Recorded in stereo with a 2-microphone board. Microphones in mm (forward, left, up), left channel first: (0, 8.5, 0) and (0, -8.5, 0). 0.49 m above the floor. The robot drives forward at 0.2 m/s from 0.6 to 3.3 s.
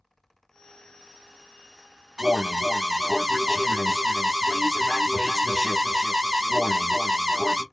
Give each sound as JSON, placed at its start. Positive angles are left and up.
{"t": 2.2, "sound": "an alarm", "side_deg": -30, "distance_m": 0.7}